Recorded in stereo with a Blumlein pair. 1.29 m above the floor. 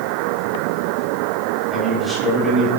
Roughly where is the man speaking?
Ahead.